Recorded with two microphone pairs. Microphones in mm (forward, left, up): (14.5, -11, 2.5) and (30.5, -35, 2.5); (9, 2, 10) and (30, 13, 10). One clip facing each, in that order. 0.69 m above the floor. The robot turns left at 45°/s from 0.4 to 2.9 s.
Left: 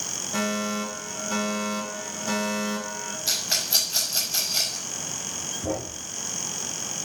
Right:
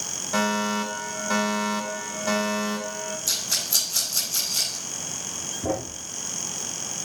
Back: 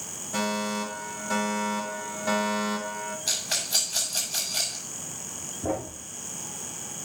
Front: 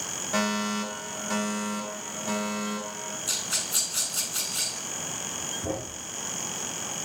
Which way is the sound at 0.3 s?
20° right.